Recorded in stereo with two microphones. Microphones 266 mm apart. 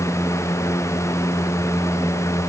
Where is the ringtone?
No ringtone in this recording.